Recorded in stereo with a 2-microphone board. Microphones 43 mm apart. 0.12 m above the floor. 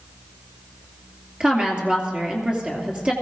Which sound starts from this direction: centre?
A woman speaking, at 1.4 s.